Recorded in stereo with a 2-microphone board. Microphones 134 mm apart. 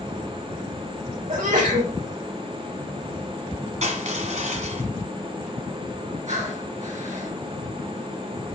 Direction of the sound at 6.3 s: 65° right (ahead or behind).